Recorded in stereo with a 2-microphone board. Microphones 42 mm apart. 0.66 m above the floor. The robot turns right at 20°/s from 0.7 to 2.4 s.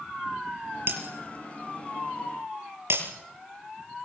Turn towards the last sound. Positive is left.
turn(degrees=-85)